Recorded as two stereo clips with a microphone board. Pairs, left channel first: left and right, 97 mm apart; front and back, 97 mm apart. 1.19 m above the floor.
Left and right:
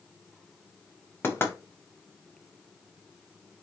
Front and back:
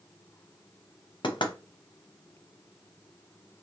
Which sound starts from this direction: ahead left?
Knocking, at 1.2 s.